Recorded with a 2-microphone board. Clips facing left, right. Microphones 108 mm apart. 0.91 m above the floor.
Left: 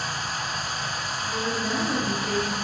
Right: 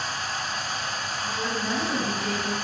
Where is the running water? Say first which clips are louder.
Even; 10° left (ahead or behind), 1.7 m.